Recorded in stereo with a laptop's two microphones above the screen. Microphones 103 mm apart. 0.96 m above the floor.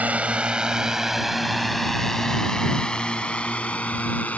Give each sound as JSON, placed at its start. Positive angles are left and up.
{"t": 0.0, "sound": "a drone", "side_deg": -15}